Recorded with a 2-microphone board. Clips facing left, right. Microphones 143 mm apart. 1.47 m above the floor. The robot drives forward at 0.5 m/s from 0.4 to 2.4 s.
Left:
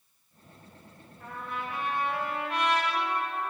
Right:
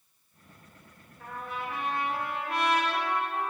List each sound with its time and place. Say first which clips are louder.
1.2 s a trumpet: even; 70° right (ahead or behind), 2 m; by 3.5 s 65° right (ahead or behind), 2 m